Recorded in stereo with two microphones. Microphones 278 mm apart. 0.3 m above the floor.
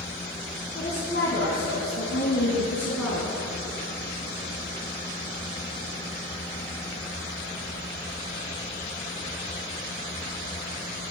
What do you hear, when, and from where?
0.8 s a woman speaking: 35° left (ahead or behind), 2.5 m; by 3.4 s 65° left (ahead or behind), 3 m